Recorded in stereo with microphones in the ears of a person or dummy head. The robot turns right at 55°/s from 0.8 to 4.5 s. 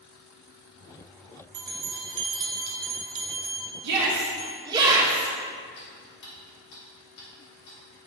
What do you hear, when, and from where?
1.5 s a bell: 55° right (ahead or behind), 1.5 m; by 4.5 s 40° left (ahead or behind), 1.5 m
3.8 s a shout: 60° right, 2 m; by 5.3 s 25° right, 2 m
5.8 s ticking: 60° left (ahead or behind), 3 m